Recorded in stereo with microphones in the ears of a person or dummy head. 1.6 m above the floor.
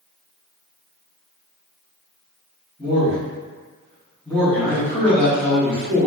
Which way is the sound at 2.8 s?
5° left (ahead or behind).